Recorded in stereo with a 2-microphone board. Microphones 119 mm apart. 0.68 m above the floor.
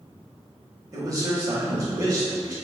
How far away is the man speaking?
About 1.2 m.